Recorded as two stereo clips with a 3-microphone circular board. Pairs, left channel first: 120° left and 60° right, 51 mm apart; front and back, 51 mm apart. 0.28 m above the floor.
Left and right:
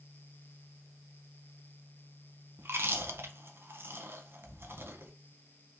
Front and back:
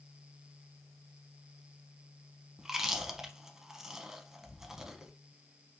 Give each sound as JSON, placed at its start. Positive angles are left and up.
{"t": 2.6, "sound": "chewing", "azimuth_deg": -100, "distance_m": 0.5}